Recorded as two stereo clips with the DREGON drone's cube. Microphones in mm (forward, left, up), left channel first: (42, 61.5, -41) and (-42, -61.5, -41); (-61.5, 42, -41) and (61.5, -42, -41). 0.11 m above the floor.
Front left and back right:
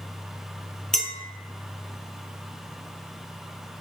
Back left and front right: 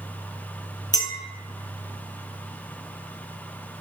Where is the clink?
140° left, 0.8 m.